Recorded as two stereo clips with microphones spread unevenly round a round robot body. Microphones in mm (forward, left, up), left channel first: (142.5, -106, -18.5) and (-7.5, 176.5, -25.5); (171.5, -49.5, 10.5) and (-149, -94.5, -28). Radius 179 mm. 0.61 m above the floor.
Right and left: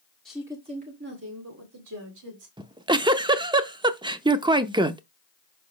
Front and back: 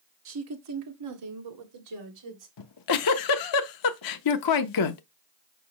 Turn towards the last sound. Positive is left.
turn(degrees=45)